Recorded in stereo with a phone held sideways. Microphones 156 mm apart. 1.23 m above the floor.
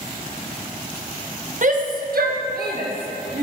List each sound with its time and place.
1.6 s a shout: 55° right (ahead or behind), 1.2 m; by 3.4 s 75° right (ahead or behind), 2.5 m